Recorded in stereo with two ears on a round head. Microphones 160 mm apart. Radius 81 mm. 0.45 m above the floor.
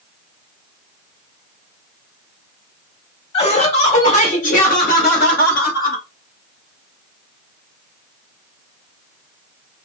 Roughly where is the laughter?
Left.